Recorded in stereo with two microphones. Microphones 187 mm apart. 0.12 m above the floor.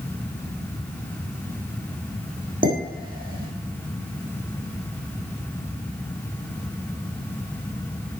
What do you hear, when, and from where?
2.6 s dishes clattering: 50° right (ahead or behind), 4 m